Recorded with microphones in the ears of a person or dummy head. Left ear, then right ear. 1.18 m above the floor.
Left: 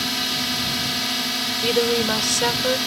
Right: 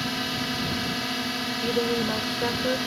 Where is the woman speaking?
80° left.